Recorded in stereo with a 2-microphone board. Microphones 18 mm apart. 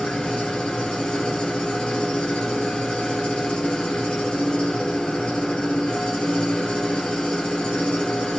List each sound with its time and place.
0.0 s an engine running: 65° left (ahead or behind), 3 m